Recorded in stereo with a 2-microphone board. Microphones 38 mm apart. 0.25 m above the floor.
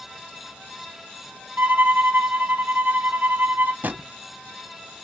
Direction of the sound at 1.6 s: 55° right (ahead or behind).